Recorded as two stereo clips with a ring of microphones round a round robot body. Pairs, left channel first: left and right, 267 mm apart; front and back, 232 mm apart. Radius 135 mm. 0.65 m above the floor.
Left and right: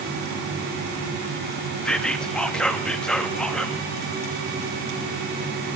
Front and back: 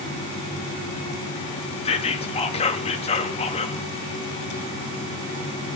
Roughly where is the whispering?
Ahead.